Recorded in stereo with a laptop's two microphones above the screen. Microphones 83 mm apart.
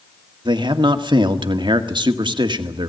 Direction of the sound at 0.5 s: 65° right (ahead or behind).